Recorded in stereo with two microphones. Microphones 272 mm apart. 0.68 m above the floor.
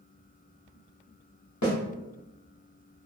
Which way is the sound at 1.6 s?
80° left.